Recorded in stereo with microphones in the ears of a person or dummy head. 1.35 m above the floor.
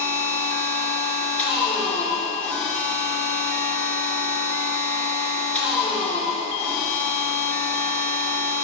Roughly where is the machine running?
Centre.